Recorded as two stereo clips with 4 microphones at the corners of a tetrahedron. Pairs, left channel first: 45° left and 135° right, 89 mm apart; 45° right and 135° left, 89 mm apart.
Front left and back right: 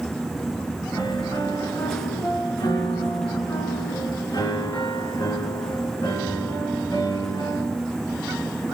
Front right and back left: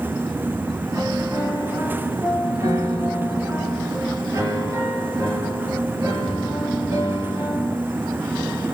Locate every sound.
0.9 s a piano: 85° left, 3 m